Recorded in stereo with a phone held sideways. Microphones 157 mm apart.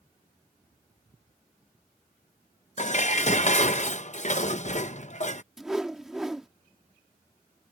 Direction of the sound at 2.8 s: 50° left (ahead or behind).